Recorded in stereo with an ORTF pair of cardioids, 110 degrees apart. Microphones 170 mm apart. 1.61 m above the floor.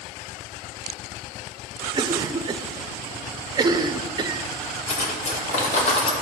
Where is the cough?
25° right, 1.0 m.